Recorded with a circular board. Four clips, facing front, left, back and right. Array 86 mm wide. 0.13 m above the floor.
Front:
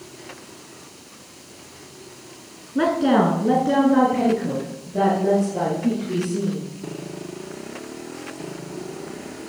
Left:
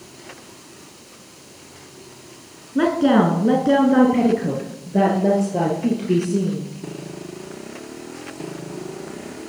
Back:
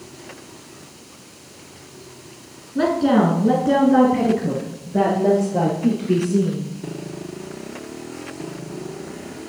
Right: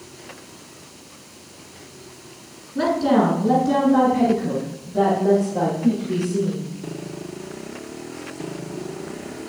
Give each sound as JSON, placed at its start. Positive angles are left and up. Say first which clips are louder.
{"t": 2.8, "sound": "a woman speaking", "louder": "left 2 dB, back 1 dB", "azimuth_deg": 65, "distance_m": 1.4}